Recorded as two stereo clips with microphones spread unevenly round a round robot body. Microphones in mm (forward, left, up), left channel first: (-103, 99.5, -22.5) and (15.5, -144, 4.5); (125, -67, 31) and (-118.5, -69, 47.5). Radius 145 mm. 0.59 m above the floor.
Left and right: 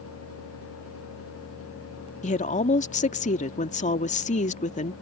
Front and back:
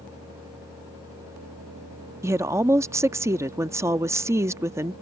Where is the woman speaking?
105° left.